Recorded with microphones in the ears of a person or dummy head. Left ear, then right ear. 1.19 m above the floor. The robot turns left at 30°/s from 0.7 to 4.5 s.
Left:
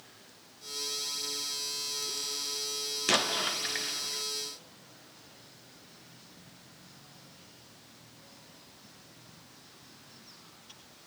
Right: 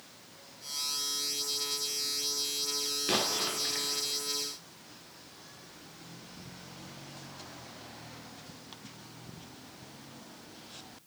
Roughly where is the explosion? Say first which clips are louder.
Left 4 dB; behind left.